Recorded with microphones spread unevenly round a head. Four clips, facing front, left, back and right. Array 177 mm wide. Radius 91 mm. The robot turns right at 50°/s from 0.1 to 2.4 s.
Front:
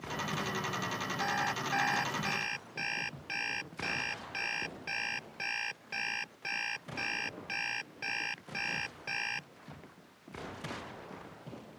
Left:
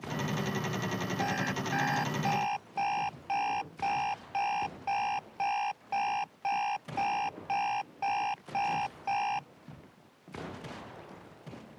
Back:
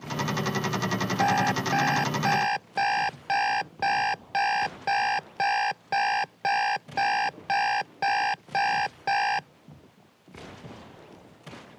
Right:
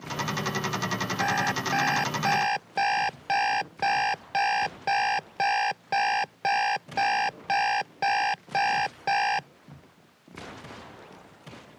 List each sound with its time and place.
1.2 s an alarm clock: 175° left; by 9.5 s 125° right